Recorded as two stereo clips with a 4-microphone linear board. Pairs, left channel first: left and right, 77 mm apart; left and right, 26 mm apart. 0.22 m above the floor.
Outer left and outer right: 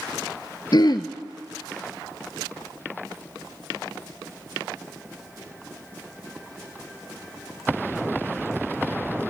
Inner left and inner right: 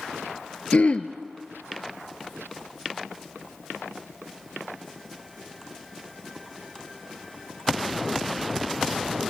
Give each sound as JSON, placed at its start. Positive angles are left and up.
{"t": 0.7, "sound": "throat clearing", "side_deg": 70, "distance_m": 0.7}